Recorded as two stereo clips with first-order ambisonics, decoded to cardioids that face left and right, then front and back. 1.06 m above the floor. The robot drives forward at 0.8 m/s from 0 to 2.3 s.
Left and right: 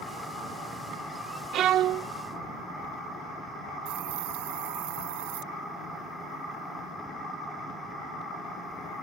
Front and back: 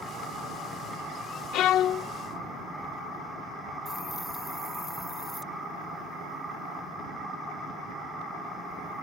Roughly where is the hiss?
Right.